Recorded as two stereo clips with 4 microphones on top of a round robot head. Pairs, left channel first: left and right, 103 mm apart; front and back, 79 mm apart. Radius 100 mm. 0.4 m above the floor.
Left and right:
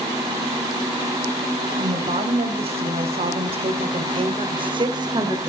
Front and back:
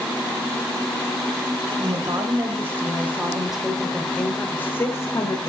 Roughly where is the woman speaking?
Behind right.